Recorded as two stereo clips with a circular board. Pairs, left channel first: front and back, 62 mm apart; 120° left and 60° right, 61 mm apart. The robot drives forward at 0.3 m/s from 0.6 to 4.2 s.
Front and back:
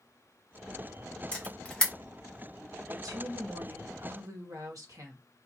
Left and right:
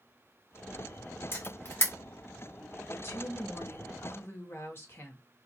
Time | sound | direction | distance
1.3 | a camera shutter | 70° left | 1.7 m
2.9 | a woman speaking | 165° left | 1.6 m